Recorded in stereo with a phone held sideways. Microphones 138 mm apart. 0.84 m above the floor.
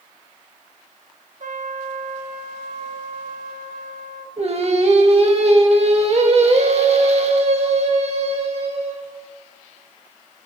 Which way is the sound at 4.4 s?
50° right (ahead or behind).